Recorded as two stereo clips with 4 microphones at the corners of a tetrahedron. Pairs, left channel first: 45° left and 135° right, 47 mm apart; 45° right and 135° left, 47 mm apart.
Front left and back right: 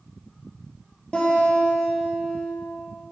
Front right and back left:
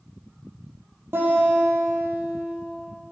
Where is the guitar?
110° left, 3.5 m.